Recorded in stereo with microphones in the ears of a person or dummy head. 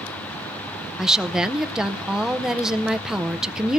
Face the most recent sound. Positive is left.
turn(degrees=-5)  # may be behind; listen again after turning